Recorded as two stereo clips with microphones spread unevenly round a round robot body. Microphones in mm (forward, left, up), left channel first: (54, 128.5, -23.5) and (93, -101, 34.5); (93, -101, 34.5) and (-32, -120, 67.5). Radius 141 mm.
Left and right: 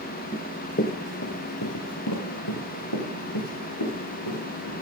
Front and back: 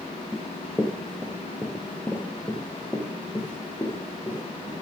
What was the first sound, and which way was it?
Running footsteps, 150° right.